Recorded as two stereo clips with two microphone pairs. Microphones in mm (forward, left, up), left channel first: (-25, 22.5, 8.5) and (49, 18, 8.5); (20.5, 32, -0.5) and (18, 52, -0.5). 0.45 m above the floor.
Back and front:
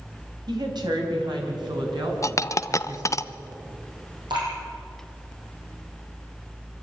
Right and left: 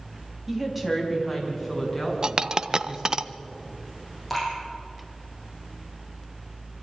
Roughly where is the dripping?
Ahead.